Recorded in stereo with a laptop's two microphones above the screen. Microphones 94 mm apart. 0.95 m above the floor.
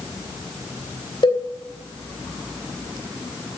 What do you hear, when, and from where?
1.2 s a cowbell: 55° left (ahead or behind), 2.5 m